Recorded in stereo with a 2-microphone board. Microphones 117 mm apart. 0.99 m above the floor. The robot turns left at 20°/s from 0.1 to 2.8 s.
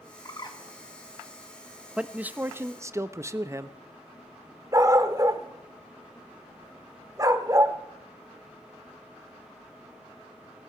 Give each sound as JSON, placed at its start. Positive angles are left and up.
{"t": 0.2, "sound": "a bird", "side_deg": 35, "distance_m": 1.5}
{"t": 2.0, "sound": "a man speaking", "side_deg": -10, "distance_m": 0.7}
{"t": 4.7, "sound": "a dog barking", "side_deg": -30, "distance_m": 1.0}